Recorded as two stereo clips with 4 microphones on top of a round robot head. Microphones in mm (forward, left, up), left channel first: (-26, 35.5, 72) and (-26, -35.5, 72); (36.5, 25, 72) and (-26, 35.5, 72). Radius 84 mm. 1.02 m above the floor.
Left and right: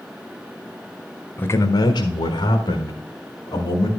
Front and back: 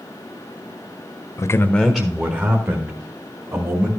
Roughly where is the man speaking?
Ahead left.